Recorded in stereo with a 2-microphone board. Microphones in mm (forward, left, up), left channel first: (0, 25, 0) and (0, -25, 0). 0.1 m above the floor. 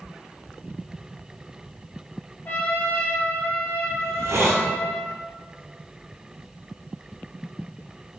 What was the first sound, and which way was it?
A trumpet, 40° left (ahead or behind).